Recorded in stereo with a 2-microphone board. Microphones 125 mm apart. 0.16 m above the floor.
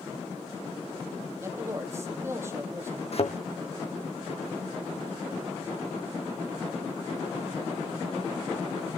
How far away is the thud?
About 2.5 m.